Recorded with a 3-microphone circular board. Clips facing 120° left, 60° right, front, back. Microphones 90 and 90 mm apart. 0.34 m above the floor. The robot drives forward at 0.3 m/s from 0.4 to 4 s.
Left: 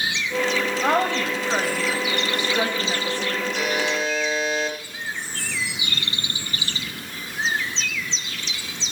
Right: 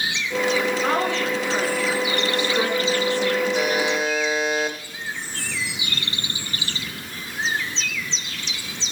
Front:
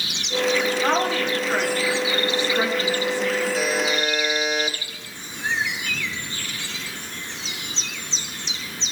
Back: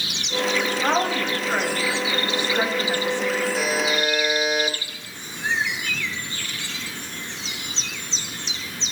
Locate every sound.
0.8 s a woman speaking: 95° left, 1.8 m; by 3.5 s 120° left, 2.0 m
3.5 s a buzzer: 95° right, 1.3 m; by 4.8 s 110° right, 1.3 m